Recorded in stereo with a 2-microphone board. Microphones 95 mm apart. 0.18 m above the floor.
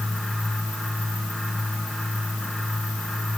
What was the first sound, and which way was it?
Only background noise.